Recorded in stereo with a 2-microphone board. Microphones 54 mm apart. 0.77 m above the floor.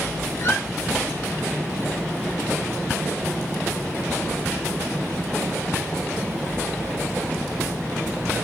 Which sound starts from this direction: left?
A squeak, at 0.4 s.